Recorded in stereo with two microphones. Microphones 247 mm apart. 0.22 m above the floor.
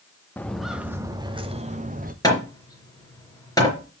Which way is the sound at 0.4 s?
5° left (ahead or behind).